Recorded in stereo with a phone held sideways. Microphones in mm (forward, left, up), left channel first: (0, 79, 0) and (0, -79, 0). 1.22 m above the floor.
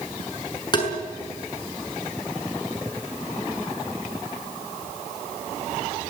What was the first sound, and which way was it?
Tapping, 30° left (ahead or behind).